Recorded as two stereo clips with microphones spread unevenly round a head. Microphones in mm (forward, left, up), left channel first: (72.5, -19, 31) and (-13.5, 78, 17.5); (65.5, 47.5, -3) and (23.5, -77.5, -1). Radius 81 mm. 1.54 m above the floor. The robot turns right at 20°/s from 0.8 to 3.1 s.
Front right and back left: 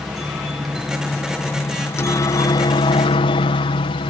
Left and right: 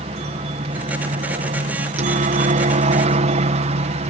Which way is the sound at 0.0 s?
145° right.